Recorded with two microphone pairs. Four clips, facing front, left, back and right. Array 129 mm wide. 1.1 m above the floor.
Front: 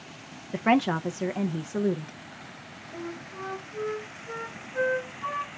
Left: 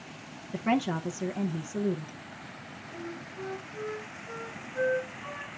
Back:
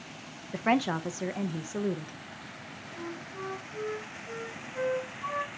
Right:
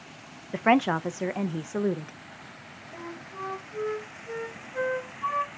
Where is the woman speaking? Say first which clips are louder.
Right 6 dB, front 4 dB; 80° right, 0.7 m.